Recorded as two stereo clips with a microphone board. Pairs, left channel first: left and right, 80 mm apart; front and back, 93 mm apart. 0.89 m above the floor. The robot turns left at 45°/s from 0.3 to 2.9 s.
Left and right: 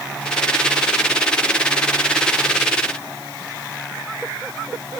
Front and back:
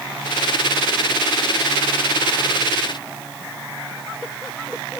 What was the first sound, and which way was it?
Only background noise.